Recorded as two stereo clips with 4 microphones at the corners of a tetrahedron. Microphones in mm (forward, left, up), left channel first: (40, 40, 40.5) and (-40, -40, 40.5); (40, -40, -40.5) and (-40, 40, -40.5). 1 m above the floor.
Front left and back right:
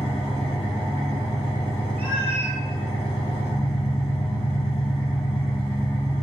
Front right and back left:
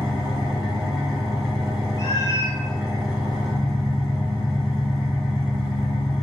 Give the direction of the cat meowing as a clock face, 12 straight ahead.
1 o'clock.